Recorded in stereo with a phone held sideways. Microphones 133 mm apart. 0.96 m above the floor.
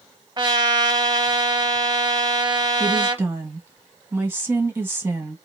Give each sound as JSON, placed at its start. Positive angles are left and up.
{"t": 0.4, "sound": "a trumpet", "side_deg": -35, "distance_m": 0.8}
{"t": 2.8, "sound": "a woman speaking", "side_deg": -15, "distance_m": 1.0}